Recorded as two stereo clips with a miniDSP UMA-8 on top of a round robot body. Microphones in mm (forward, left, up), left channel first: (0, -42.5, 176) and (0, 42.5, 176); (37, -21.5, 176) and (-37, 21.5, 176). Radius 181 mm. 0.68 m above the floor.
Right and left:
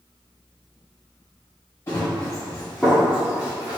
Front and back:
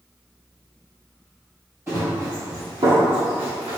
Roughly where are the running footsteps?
Behind right.